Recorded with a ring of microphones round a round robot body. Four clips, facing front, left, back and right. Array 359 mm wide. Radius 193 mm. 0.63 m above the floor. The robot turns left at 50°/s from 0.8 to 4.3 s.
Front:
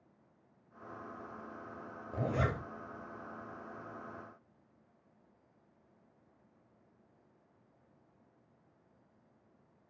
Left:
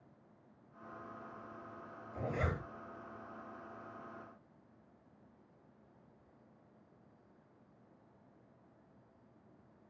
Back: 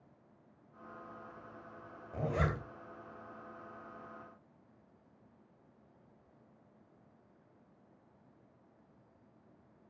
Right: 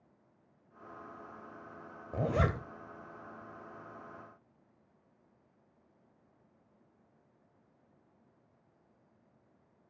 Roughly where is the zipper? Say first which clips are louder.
Right 7 dB, front 1 dB; right.